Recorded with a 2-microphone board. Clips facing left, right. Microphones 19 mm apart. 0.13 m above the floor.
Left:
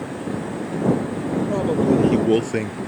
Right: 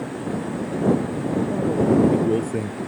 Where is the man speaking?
60° left (ahead or behind); by 2.8 s 50° left (ahead or behind).